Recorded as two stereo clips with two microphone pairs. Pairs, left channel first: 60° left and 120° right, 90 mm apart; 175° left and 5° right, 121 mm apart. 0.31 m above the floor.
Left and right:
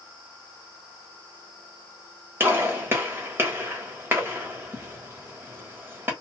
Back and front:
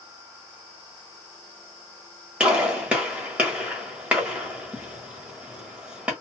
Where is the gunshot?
75° right, 1.3 m.